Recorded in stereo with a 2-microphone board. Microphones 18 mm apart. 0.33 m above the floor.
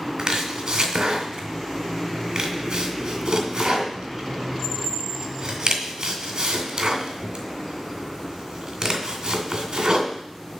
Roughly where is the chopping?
Right.